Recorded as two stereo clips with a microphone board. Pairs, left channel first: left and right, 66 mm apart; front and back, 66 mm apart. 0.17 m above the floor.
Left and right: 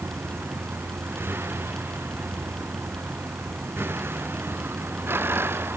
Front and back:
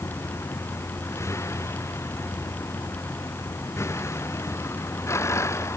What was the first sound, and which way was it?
A vehicle, 40° right.